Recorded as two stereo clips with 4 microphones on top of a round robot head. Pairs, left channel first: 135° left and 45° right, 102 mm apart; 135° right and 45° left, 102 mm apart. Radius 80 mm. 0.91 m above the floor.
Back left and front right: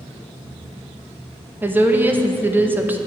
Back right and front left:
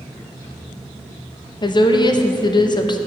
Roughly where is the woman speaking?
Right.